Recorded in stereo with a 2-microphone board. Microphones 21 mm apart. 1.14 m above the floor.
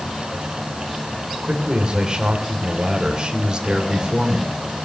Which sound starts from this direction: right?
A man speaking, at 1.4 s.